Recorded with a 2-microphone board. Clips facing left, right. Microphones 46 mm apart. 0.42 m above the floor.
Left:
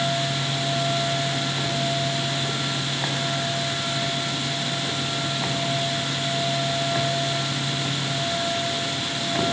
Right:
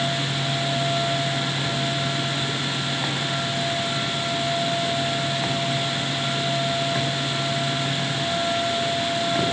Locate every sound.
Only background noise.